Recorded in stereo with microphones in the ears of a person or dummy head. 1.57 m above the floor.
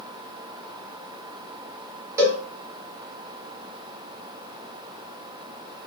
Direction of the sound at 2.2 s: 15° right (ahead or behind).